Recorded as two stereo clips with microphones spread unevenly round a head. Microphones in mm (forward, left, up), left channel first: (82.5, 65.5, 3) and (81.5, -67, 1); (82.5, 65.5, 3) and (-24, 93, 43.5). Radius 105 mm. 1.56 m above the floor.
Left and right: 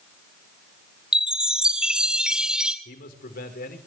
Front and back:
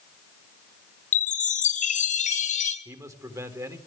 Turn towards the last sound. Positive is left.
turn(degrees=105)